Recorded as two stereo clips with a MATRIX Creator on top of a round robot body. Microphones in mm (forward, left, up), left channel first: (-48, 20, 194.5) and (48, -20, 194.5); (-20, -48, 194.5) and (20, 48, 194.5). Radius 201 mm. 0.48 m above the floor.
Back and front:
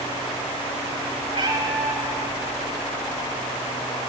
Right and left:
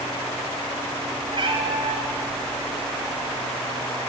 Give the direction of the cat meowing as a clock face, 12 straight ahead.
11 o'clock.